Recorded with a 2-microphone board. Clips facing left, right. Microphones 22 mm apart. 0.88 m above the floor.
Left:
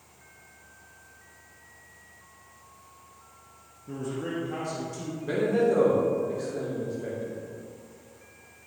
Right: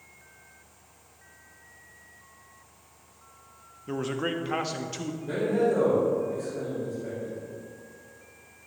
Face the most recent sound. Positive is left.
turn(degrees=40)  # may be behind; listen again after turning